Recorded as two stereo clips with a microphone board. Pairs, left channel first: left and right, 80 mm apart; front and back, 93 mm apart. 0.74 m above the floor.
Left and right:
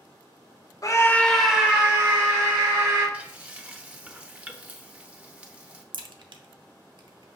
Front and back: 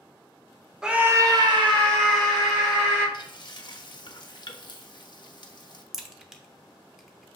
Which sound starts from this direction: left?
A scream, at 0.8 s.